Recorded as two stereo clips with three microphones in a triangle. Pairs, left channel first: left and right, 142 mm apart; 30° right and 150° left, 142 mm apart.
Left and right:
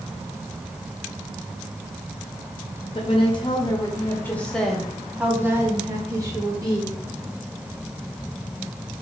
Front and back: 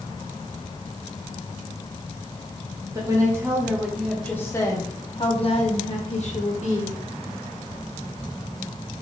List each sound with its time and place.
3.0 s a woman speaking: 105° left, 1.1 m; by 7.0 s 35° right, 1.7 m